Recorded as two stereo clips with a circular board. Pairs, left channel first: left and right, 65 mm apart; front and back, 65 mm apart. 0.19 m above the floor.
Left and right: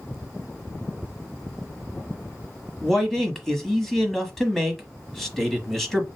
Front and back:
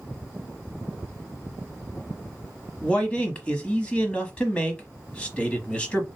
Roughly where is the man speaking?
Ahead.